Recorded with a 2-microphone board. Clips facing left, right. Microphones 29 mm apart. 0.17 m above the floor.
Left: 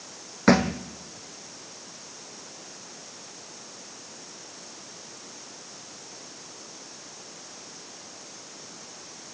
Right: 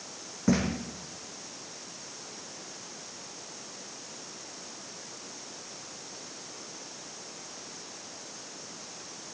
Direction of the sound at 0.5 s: 65° left (ahead or behind).